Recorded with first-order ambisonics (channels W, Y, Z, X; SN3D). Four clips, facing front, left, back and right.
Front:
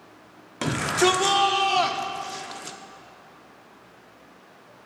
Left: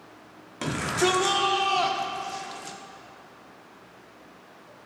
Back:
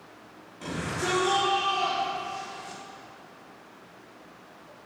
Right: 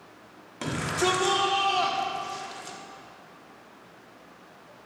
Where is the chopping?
No chopping in this recording.